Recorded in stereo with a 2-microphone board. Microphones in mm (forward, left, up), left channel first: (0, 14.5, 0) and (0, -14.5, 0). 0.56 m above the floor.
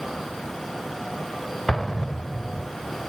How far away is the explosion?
About 0.7 m.